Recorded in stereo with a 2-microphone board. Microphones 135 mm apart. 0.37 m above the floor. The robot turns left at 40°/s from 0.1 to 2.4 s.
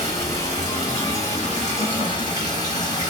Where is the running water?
125° left, 1.6 m; by 3.1 s 35° left, 1.6 m.